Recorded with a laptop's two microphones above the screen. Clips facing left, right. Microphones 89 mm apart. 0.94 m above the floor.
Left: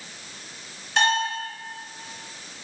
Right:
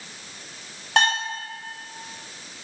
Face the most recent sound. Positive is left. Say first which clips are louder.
# even
turn(degrees=-60)  # may be behind; listen again after turning